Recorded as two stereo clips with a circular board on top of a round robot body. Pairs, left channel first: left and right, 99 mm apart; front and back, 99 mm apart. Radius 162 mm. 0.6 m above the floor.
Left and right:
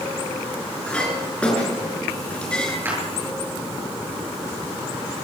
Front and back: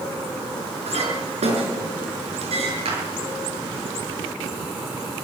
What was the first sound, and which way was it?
A clink, 170° left.